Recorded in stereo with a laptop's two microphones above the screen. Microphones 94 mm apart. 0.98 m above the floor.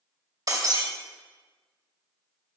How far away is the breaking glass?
About 2.5 m.